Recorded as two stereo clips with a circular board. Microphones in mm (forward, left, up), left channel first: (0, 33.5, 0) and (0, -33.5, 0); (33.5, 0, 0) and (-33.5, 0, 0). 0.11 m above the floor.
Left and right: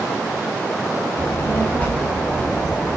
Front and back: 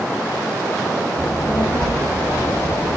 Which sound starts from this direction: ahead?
A child speaking, at 1.2 s.